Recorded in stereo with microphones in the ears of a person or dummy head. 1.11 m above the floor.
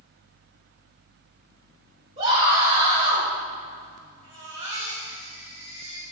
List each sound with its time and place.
2.2 s a scream: 35° right (ahead or behind), 4 m; by 3.3 s 50° right (ahead or behind), 3.5 m
4.2 s a baby crying: 40° right (ahead or behind), 3.5 m